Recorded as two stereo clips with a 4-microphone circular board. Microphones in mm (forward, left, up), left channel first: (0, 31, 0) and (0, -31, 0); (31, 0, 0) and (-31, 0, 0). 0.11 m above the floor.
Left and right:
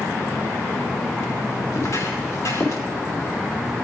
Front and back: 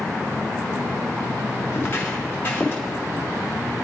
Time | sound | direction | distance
1.7 | footsteps | 60° left | 4.5 m